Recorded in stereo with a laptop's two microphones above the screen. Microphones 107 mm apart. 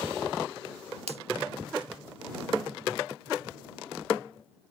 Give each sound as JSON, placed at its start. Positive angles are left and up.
{"t": 1.1, "sound": "a finger snap", "side_deg": -75}